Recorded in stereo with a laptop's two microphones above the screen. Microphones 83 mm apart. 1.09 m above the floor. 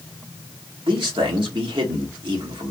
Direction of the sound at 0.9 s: 75° right (ahead or behind).